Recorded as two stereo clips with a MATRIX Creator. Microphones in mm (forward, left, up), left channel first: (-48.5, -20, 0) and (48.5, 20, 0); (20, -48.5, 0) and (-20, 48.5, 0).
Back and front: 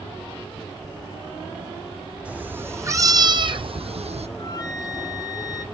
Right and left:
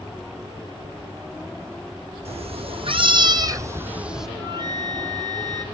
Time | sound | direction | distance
2.2 | a cat meowing | 100° left | 2.5 m
4.3 | a flute | 155° left | 1.2 m